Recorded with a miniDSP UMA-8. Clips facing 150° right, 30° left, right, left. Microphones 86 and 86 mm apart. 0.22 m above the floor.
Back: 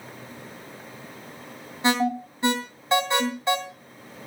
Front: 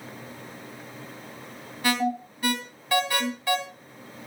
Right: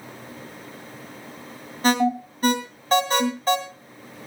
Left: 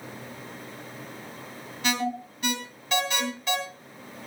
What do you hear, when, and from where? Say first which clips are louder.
1.8 s an alarm: back 3 dB, right 8 dB; 100° right, 2.5 m